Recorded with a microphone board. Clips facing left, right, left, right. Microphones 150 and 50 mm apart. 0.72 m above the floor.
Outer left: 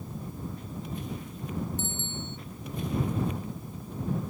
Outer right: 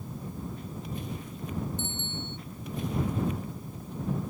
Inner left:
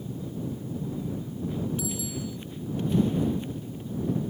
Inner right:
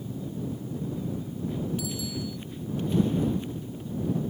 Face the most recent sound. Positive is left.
turn(degrees=-70)  # may be behind; listen again after turning